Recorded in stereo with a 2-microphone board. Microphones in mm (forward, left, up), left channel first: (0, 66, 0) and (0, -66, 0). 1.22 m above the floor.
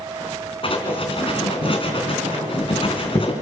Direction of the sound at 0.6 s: 40° left (ahead or behind).